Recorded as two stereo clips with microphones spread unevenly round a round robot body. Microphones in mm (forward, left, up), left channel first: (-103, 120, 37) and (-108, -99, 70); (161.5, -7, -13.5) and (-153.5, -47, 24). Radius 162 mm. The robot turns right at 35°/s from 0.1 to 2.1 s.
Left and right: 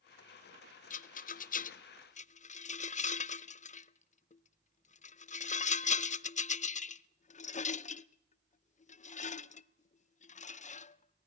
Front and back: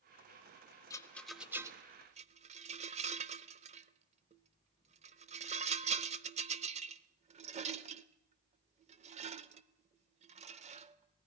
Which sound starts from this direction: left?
A rattle, at 0.9 s.